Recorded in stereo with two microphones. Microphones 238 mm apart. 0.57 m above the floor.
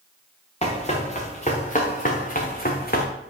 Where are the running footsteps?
30° left (ahead or behind), 3 m; by 3.1 s 40° left (ahead or behind), 2 m.